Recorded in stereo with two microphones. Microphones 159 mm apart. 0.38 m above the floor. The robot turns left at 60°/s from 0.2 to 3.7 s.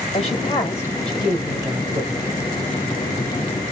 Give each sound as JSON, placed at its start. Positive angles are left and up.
{"t": 0.1, "sound": "a woman speaking", "azimuth_deg": 60, "distance_m": 1.8}